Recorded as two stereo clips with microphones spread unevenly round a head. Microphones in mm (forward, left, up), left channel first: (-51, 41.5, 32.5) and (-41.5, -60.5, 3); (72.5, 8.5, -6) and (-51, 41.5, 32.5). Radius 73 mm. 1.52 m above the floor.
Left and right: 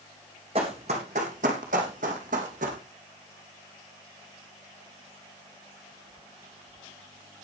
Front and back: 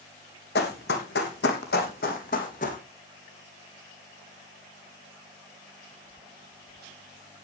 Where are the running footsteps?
25° right, 3.5 m; by 2.8 s 60° right, 3.5 m.